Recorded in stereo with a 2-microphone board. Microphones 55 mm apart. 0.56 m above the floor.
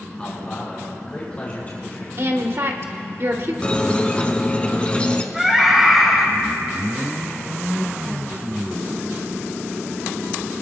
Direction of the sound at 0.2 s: 20° left (ahead or behind).